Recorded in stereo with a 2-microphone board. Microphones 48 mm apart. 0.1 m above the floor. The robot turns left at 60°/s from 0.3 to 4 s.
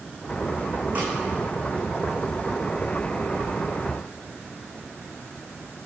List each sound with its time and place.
0.9 s a snare drum: 30° right (ahead or behind), 4 m; by 1.1 s 20° right (ahead or behind), 4 m